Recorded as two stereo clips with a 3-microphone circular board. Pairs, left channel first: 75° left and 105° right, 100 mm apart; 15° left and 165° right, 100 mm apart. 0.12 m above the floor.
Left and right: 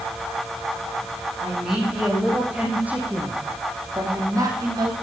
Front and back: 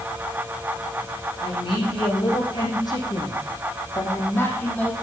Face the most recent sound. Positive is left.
turn(degrees=-60)